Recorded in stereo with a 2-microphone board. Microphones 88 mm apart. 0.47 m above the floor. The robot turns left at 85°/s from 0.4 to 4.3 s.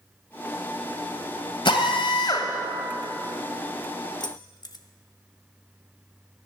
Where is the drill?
110° left, 1.7 m; by 2.5 s 35° left, 1.7 m.